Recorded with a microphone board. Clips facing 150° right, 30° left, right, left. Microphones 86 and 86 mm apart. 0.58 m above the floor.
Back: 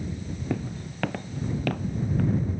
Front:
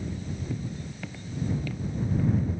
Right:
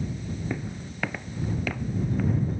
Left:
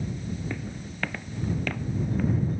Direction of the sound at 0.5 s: 165° right.